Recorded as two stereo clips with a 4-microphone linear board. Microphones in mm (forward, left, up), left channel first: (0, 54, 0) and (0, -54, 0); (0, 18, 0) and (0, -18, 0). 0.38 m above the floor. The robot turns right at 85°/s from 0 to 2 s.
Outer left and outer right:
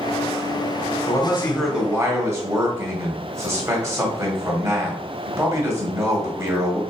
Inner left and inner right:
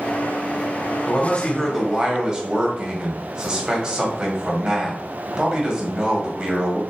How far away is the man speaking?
About 1.8 m.